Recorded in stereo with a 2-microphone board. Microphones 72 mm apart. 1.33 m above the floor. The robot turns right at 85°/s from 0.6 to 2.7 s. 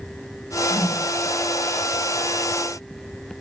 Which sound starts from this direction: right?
A whoosh, at 0.7 s.